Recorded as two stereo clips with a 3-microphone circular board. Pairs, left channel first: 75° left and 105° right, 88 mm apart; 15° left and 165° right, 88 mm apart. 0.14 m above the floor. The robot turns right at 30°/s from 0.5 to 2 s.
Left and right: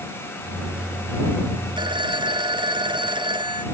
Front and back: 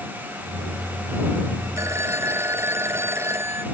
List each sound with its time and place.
1.8 s a phone ringing: 115° right; by 3.6 s 105° right